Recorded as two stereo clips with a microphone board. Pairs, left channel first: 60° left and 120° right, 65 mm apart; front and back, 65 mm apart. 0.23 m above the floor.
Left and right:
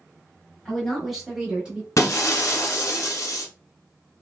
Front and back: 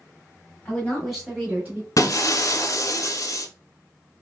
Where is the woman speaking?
10° right, 1.2 m; by 1.9 s 175° right, 1.3 m.